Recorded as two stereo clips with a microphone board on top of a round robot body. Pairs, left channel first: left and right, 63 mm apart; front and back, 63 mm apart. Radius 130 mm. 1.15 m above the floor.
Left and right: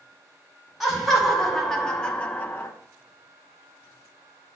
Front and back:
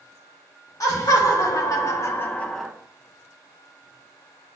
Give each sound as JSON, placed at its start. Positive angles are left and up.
{"t": 0.8, "sound": "laughter", "azimuth_deg": 0, "distance_m": 1.6}